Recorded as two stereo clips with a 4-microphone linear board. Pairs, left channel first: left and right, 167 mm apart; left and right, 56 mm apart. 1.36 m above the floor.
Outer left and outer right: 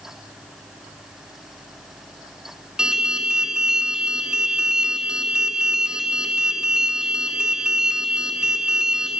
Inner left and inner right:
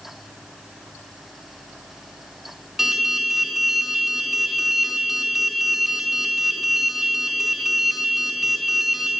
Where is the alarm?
5° right (ahead or behind), 4 m.